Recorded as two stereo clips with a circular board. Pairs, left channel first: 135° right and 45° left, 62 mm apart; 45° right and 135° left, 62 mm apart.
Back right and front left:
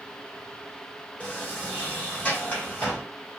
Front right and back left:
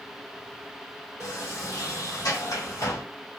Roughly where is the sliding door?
Right.